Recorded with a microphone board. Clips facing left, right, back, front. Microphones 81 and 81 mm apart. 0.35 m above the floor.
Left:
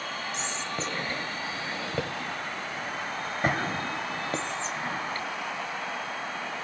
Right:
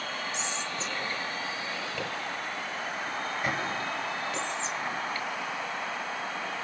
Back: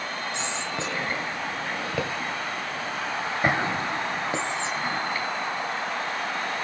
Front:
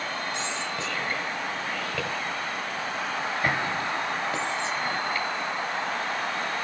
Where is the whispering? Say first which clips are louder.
Left 1 dB, back 1 dB; 120° left, 1.3 m.